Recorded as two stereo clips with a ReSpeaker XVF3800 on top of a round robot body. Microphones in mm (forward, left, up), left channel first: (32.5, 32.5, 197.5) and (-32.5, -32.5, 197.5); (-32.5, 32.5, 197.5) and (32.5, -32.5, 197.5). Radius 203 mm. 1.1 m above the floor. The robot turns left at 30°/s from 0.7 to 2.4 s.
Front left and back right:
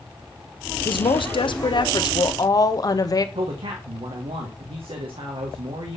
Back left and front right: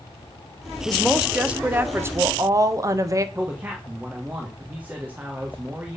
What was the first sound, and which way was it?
A woman speaking, 50° left.